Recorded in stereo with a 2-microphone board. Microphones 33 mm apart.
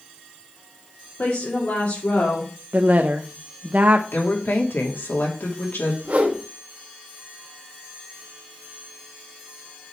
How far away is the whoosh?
About 1.6 m.